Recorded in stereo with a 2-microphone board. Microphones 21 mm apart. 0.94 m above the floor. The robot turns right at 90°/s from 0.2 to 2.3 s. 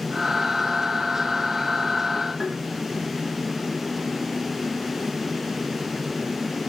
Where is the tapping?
30° right (ahead or behind), 5 m.